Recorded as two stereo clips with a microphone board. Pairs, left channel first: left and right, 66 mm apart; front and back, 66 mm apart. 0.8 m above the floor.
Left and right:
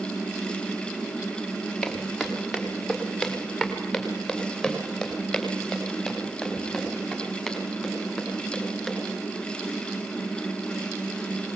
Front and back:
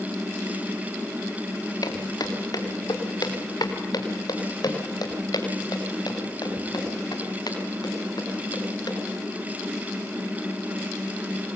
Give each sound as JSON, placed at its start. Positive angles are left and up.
{"t": 1.8, "sound": "footsteps", "azimuth_deg": -5, "distance_m": 4.5}